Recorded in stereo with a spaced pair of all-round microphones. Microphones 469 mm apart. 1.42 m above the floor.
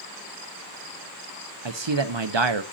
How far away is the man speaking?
About 0.9 m.